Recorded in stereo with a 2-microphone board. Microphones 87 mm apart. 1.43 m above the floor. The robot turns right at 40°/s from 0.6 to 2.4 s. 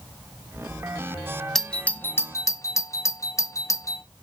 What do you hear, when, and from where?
1.6 s a doorbell: 5° left (ahead or behind), 0.6 m; by 4.0 s 40° left (ahead or behind), 0.6 m